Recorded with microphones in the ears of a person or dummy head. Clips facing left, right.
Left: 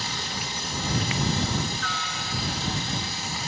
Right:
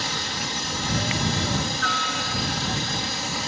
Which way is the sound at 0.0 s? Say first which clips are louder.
Right 3 dB; 50° right (ahead or behind).